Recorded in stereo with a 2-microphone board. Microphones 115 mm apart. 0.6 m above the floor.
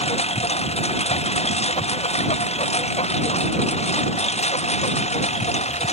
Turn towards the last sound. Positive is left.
turn(degrees=70)  # may be behind; listen again after turning